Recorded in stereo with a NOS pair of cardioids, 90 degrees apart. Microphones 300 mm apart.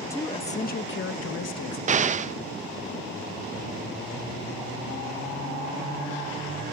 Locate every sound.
0.1 s a woman speaking: 10° left, 1.7 m; by 1.8 s 65° left, 2.0 m
1.9 s an explosion: 25° right, 0.5 m